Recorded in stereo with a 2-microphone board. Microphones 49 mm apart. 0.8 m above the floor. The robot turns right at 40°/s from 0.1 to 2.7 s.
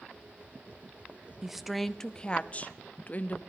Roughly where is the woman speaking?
Ahead.